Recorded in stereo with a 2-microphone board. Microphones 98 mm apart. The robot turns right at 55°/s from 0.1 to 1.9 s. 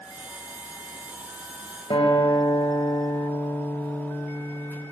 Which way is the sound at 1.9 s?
65° left (ahead or behind).